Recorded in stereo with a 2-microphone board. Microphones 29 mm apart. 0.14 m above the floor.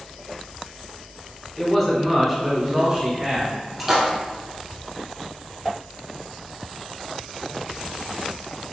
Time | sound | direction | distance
1.6 | a man speaking | 20° left (ahead or behind) | 1.0 m
3.8 | a splash | 15° right (ahead or behind) | 1.4 m